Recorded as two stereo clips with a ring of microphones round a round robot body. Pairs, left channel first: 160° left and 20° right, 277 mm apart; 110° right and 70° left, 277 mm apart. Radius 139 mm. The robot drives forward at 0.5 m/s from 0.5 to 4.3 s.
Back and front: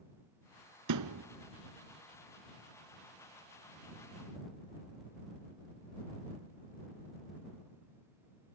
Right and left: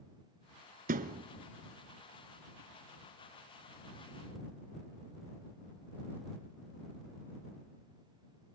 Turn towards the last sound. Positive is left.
turn(degrees=170)